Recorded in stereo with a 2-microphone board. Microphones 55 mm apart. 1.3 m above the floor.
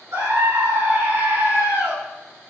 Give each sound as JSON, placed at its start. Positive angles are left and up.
{"t": 0.1, "sound": "a scream", "side_deg": -55, "distance_m": 6.0}